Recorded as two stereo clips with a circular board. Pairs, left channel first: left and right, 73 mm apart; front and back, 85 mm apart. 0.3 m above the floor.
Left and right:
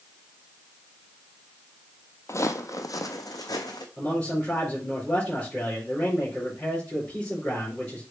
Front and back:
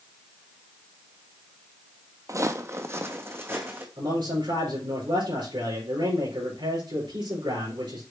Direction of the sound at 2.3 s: 135° left.